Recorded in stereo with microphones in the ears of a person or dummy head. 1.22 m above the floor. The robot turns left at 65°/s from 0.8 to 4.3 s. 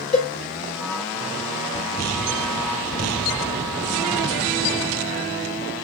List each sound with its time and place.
0.1 s a cowbell: 35° left (ahead or behind), 1.4 m